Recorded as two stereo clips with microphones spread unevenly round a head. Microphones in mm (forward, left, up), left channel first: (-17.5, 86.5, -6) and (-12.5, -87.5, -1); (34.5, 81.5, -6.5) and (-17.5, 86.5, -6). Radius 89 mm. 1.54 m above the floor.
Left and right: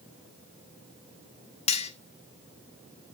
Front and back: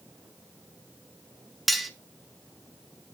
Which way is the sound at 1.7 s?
85° left.